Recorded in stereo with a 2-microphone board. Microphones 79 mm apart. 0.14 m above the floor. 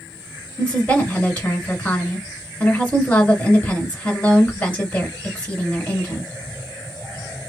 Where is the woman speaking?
15° left (ahead or behind), 1.7 m.